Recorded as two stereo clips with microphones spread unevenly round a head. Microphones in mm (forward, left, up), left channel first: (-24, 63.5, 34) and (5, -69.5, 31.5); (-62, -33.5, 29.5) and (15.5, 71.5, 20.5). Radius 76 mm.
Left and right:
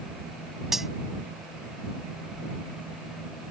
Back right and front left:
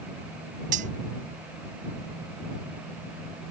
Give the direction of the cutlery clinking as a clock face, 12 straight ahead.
12 o'clock.